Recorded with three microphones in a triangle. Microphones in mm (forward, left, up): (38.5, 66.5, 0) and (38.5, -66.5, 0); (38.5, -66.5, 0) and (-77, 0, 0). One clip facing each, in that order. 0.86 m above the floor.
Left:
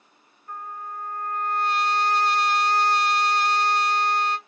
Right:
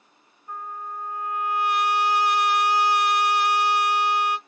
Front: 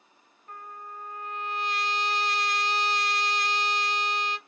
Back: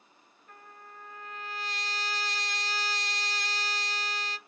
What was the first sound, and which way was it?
A trumpet, 15° right.